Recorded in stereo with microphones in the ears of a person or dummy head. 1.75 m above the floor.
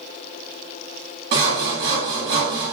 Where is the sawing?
45° right (ahead or behind), 2 m.